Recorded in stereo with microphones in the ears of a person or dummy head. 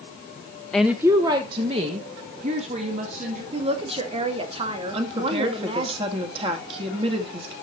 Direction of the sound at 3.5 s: 35° right (ahead or behind).